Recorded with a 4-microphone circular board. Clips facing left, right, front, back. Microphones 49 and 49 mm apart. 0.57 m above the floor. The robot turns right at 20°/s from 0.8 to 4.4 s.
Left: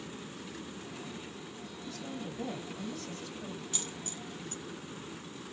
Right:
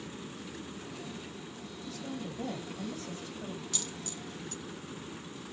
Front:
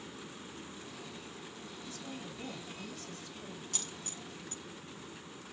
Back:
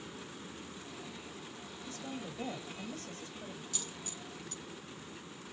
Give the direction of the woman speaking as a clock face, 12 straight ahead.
6 o'clock.